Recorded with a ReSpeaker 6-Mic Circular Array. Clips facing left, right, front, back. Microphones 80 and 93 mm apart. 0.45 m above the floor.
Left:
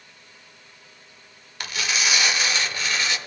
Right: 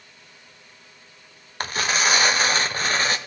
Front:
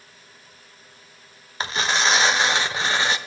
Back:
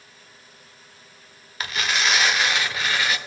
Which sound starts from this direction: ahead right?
Tearing paper, at 1.6 s.